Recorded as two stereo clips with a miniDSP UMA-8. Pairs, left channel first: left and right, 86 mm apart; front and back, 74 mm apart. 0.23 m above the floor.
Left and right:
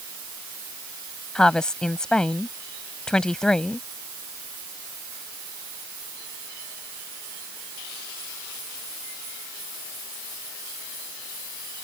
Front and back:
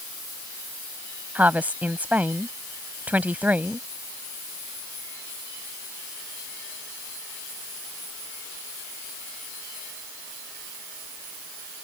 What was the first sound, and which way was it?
A woman speaking, 160° left.